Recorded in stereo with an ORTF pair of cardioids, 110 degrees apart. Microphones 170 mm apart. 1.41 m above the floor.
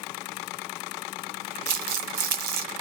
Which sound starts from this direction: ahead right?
Crumpling, at 1.7 s.